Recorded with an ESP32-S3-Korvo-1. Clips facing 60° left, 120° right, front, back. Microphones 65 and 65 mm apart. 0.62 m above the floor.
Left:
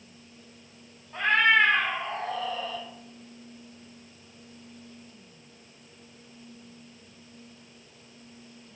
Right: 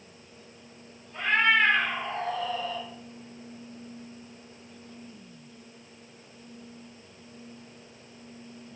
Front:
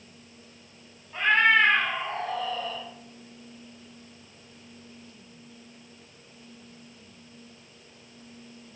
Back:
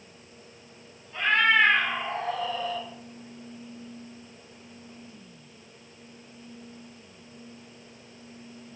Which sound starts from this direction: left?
A cat meowing, at 1.1 s.